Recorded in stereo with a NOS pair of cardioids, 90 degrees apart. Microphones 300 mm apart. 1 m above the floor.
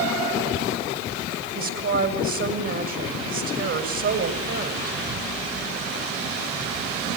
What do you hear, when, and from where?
1.6 s a woman speaking: 55° right, 6.5 m